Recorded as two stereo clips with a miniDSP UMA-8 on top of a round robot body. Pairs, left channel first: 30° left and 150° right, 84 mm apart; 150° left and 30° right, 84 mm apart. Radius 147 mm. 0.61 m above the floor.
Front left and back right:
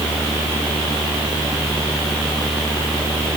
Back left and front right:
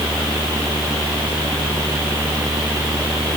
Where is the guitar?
I don't hear a guitar.